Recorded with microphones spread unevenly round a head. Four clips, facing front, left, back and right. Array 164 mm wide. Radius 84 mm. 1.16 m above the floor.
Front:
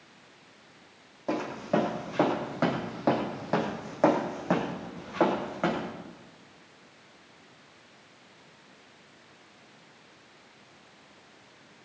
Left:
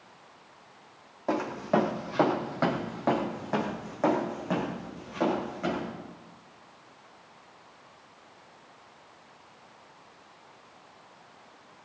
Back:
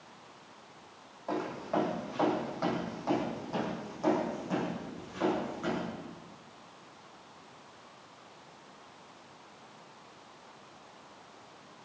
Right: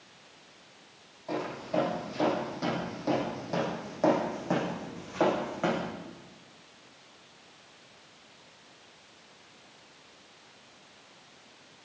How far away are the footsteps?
About 3.5 m.